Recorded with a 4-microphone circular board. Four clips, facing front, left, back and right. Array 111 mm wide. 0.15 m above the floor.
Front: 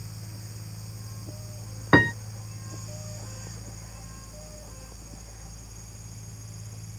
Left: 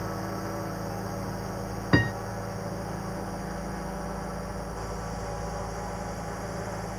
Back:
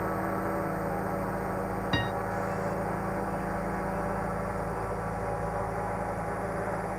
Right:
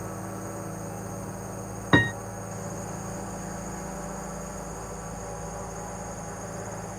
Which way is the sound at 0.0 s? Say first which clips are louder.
Left 3 dB, back 17 dB; 170° left.